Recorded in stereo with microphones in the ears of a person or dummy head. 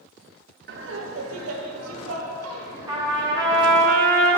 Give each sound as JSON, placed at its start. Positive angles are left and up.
{"t": 0.7, "sound": "laughter", "side_deg": -55, "distance_m": 1.0}
{"t": 2.9, "sound": "a trumpet", "side_deg": -25, "distance_m": 2.0}